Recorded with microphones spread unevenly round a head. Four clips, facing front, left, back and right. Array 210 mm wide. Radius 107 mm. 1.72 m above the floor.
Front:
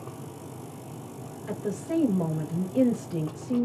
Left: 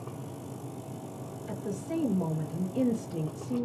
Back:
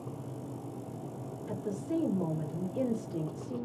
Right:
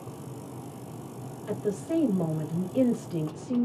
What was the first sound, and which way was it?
A woman speaking, 30° right.